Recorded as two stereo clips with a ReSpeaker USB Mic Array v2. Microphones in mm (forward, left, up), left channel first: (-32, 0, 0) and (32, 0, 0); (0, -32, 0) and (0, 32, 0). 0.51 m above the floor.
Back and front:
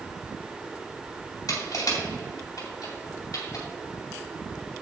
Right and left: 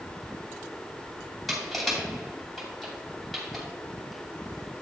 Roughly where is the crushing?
Behind.